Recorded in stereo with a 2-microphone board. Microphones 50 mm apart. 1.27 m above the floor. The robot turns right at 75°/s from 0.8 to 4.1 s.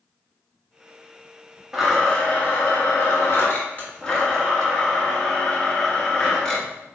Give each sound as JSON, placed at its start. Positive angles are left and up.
{"t": 1.7, "sound": "a blender", "azimuth_deg": -10, "distance_m": 1.4}